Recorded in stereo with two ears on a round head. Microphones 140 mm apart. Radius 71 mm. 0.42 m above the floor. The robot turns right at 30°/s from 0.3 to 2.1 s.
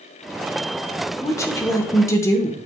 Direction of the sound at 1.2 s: 20° left (ahead or behind).